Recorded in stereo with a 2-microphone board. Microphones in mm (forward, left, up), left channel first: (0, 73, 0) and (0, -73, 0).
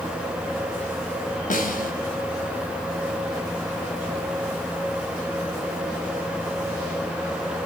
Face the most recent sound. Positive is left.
turn(degrees=65)  # may be behind; listen again after turning